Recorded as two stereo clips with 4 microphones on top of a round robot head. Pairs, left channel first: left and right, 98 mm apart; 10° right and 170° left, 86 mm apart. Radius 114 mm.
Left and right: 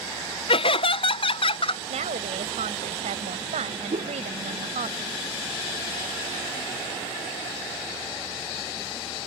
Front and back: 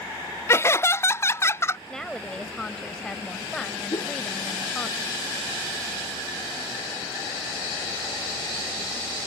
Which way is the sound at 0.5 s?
50° left.